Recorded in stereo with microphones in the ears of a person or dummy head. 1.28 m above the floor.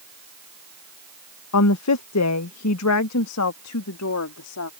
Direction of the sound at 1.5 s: 85° left.